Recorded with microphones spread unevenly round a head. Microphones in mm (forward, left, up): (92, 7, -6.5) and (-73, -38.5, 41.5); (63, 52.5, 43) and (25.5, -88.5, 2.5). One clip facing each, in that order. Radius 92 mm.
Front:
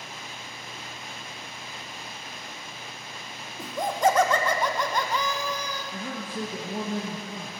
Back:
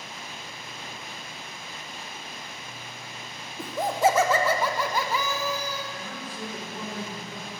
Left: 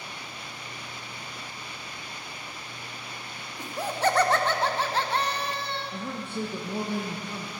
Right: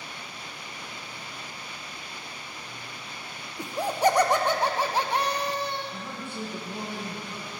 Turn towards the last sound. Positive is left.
turn(degrees=40)